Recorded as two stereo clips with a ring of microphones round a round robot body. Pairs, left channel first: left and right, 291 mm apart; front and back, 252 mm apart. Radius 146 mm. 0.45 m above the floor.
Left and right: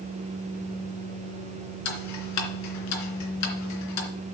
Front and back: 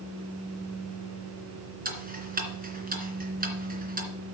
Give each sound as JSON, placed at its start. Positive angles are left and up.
{"t": 1.9, "sound": "ticking", "azimuth_deg": 125, "distance_m": 2.5}